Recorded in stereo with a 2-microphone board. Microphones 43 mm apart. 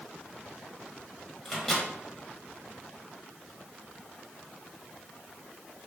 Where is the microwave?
10° left (ahead or behind), 1.1 m.